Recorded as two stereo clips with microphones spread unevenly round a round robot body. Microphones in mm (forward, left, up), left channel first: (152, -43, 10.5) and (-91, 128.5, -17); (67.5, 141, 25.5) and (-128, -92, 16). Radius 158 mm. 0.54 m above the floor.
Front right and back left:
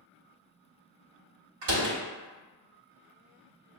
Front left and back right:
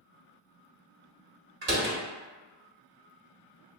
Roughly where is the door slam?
Behind.